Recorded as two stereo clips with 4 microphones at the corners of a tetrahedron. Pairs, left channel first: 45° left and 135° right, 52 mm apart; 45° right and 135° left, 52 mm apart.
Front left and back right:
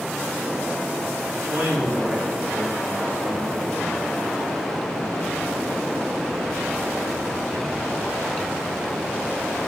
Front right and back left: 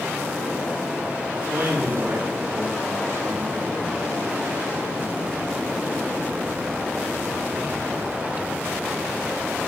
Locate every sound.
1.3 s a man speaking: 170° left, 5 m